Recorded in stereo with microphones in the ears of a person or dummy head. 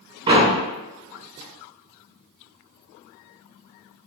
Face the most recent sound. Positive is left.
turn(degrees=-20)  # may be behind; listen again after turning